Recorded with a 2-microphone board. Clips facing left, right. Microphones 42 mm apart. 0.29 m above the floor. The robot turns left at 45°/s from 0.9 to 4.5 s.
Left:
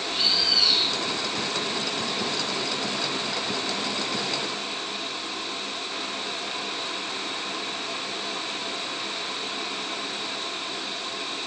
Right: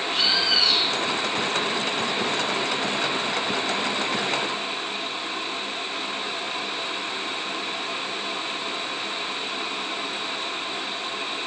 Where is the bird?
75° right (ahead or behind), 1.9 m.